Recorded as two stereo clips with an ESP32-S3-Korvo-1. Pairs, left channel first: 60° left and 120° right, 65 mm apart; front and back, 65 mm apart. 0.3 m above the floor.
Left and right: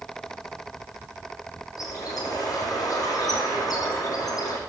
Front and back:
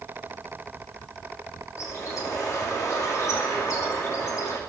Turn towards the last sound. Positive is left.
turn(degrees=40)